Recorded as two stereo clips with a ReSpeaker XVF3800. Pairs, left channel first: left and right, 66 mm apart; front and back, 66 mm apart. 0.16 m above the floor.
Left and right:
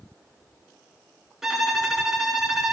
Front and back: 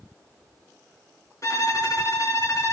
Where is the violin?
5° right, 2 m.